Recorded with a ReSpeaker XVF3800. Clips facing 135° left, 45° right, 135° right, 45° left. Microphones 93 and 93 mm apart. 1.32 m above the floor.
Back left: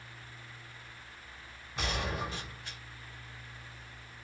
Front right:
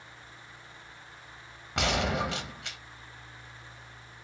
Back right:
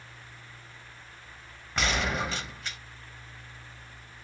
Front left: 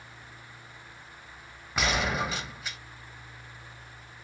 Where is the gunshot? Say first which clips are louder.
Front right 7 dB, front left 1 dB; 40° right, 1.0 m.